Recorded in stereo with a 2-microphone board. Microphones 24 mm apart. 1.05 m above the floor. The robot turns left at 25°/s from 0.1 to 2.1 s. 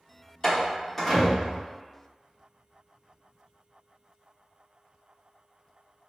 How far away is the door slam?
About 0.8 m.